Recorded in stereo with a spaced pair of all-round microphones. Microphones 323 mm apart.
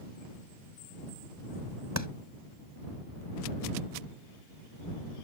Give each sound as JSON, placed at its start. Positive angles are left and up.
{"t": 2.0, "sound": "a clap", "side_deg": -60}